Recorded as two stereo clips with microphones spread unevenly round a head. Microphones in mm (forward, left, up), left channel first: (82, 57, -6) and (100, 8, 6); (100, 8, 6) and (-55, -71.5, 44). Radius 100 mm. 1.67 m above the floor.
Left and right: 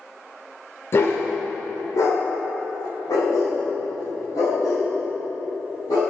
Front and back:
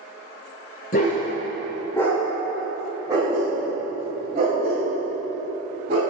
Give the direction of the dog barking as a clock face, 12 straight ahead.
9 o'clock.